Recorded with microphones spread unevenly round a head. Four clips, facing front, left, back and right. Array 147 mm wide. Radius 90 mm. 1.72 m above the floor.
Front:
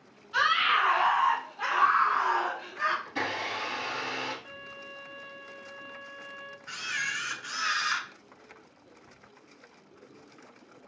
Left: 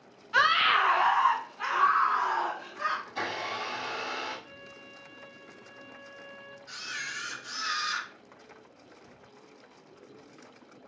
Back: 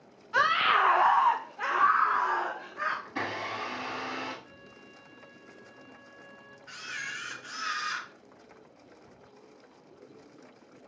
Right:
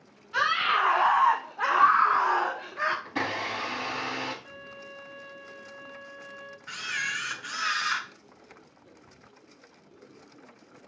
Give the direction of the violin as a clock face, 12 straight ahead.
12 o'clock.